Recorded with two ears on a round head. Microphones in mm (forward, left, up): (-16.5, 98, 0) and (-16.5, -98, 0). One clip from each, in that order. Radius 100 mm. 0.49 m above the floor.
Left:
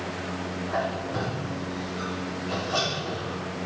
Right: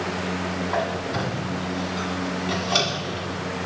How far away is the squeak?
About 1.5 m.